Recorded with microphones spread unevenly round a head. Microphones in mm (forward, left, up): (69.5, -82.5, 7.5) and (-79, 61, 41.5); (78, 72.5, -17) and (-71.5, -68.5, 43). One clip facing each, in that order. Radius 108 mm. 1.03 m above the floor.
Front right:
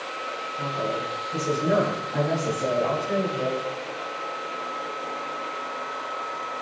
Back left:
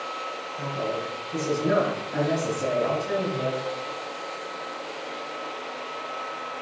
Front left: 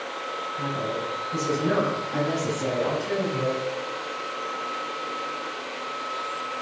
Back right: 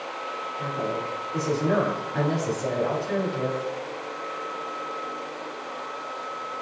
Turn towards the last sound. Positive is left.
turn(degrees=70)